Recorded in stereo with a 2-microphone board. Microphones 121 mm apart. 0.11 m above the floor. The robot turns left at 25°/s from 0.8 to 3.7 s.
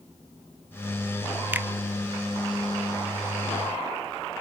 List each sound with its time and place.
1.5 s a finger snap: 15° right (ahead or behind), 0.9 m